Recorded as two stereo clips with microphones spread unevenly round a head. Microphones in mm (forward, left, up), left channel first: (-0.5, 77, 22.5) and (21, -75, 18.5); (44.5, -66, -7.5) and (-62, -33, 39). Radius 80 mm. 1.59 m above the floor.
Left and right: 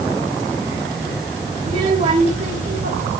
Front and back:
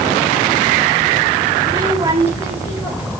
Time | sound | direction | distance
1.6 | a child speaking | 140° right | 5 m